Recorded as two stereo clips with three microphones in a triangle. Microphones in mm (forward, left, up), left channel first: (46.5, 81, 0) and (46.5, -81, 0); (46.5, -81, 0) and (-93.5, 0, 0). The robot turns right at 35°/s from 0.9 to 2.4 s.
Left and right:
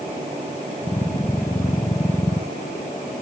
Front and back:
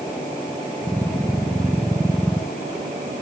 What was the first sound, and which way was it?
Only background noise.